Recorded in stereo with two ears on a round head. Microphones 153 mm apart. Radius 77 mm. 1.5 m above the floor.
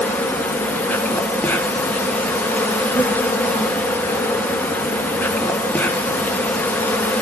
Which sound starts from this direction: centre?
An insect, at 0.0 s.